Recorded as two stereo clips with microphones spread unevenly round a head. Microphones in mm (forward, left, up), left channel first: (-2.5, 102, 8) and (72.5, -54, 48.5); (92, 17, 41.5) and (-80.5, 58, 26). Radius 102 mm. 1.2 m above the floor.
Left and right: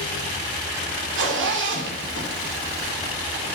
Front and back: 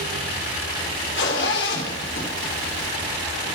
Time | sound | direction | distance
1.1 | a zipper | 50° right | 3.5 m